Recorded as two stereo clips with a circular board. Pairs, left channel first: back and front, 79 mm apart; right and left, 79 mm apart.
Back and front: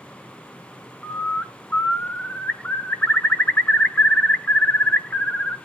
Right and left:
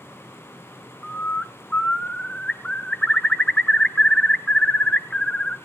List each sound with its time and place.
1.0 s a bird: 145° right, 0.9 m